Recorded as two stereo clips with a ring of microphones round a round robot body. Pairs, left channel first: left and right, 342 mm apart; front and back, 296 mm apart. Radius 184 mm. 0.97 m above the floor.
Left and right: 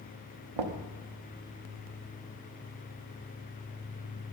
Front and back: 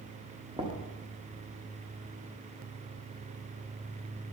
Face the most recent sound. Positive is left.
turn(degrees=-105)